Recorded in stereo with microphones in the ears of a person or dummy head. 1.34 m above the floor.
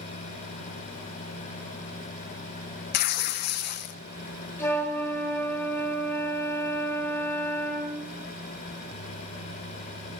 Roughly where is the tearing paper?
Left.